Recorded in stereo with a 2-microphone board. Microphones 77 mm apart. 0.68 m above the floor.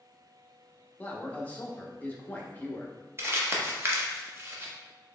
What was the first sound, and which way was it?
A man speaking, 20° left (ahead or behind).